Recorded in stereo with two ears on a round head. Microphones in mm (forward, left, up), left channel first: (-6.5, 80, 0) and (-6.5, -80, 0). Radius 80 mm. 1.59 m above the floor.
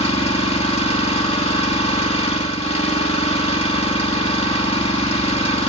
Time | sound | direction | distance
0.0 | an engine running | 35° left (ahead or behind) | 2.5 m